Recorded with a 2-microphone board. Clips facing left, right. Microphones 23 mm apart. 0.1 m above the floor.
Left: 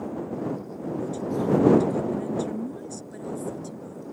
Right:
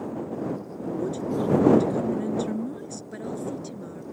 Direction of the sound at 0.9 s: 15° right (ahead or behind).